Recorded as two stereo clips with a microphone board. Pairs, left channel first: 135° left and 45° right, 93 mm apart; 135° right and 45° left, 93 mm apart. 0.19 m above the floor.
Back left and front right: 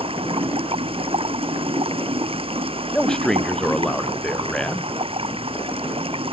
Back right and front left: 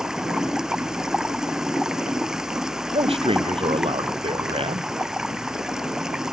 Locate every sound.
0.0 s running water: 40° right
2.9 s a man speaking: 50° left